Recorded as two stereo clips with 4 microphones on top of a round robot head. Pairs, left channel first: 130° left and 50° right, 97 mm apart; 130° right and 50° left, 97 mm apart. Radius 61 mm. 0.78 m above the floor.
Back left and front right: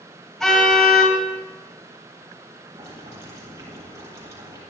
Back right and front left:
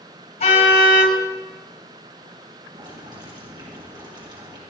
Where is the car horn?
150° right, 8.5 m.